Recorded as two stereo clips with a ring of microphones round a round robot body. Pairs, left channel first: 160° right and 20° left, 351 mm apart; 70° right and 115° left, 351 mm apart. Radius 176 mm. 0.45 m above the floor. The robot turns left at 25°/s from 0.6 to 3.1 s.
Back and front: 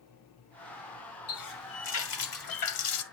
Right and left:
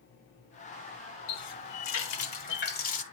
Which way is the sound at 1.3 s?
95° right.